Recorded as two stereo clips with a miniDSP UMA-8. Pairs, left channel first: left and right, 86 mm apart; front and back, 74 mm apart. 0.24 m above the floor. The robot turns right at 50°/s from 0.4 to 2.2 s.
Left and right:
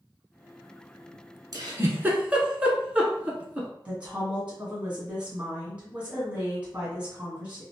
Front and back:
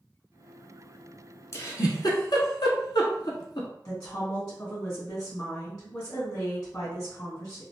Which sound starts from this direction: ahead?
A woman speaking, at 3.9 s.